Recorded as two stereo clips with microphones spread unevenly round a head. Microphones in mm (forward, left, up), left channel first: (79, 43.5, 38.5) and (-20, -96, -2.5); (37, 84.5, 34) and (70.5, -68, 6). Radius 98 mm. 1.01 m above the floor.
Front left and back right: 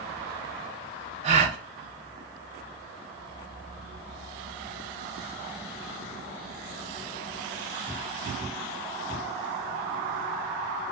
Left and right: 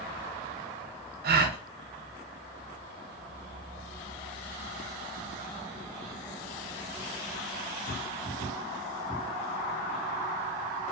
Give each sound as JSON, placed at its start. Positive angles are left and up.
{"t": 1.2, "sound": "a gasp", "azimuth_deg": -80, "distance_m": 0.6}